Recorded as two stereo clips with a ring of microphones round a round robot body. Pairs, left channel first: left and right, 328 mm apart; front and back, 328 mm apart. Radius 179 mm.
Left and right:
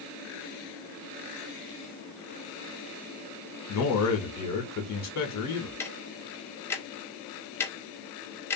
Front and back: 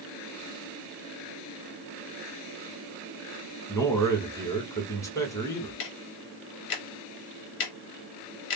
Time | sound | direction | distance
3.7 | a man speaking | 80° left | 1.2 m
5.8 | ticking | 5° left | 0.6 m